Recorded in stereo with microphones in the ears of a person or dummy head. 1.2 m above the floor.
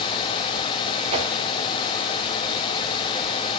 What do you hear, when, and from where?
1.1 s a whoosh: 35° right (ahead or behind), 1.6 m